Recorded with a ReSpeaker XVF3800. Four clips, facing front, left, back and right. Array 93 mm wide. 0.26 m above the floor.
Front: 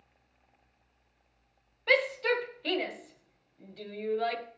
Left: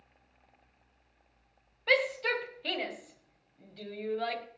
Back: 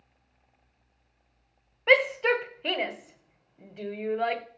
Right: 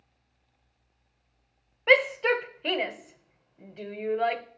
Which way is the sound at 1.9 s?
135° right.